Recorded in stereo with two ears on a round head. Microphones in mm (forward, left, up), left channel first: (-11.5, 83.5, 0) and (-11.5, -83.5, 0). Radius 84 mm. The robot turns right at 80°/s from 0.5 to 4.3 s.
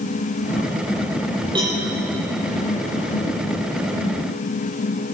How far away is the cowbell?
About 8 m.